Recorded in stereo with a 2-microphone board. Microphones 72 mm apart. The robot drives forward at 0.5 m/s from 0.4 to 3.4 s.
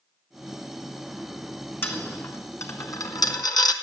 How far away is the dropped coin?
About 1.2 m.